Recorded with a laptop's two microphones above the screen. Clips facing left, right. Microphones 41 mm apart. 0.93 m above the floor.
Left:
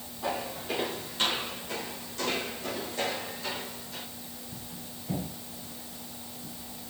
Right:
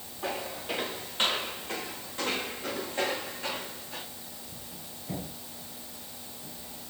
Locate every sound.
0.2 s footsteps: 20° right (ahead or behind), 6 m; by 4.0 s 35° right (ahead or behind), 3.5 m